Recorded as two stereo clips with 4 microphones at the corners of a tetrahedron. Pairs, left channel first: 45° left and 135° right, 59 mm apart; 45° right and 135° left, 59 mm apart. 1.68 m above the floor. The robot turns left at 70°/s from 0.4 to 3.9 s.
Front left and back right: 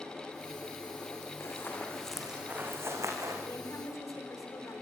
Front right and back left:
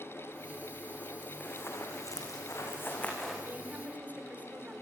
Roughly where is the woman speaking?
Left.